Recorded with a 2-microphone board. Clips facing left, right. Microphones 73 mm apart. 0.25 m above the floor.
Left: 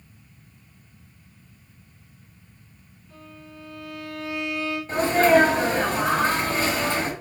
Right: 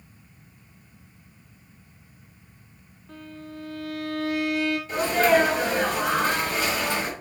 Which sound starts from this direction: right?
A violin, at 3.1 s.